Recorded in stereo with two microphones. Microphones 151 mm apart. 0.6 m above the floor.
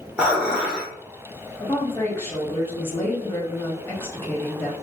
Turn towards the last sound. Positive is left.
turn(degrees=15)  # may be behind; listen again after turning